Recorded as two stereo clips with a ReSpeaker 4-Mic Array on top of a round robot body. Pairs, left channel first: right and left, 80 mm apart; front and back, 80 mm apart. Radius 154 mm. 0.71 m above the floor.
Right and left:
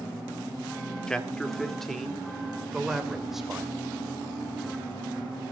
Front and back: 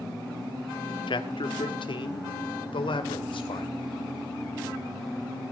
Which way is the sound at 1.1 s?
10° right.